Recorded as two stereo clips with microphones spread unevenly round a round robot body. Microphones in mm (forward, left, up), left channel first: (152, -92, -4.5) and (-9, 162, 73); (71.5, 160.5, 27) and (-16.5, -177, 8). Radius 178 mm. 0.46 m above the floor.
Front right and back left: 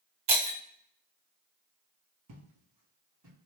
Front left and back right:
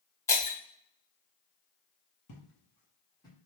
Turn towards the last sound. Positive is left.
turn(degrees=155)